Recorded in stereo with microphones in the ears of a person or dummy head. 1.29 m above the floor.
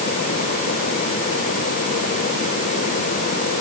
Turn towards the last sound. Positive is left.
No sound to turn to.